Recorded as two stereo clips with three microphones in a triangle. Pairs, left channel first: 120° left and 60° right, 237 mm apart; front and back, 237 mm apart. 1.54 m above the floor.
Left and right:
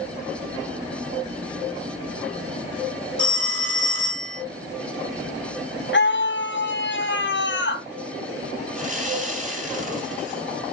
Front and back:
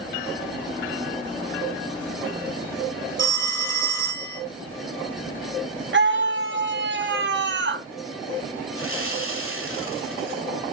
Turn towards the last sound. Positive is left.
turn(degrees=-5)